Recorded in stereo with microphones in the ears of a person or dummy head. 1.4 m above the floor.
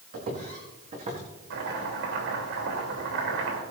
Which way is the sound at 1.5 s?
70° right (ahead or behind).